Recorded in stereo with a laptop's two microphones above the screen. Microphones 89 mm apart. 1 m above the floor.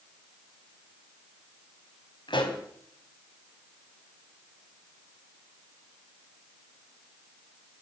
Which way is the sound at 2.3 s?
60° left (ahead or behind).